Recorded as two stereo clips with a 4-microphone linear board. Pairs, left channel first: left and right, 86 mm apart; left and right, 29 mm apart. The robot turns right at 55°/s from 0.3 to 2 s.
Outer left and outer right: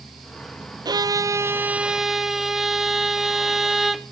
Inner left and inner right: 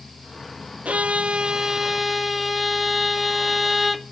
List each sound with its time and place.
0.8 s a violin: 70° right, 0.5 m; by 4.1 s 5° right, 0.5 m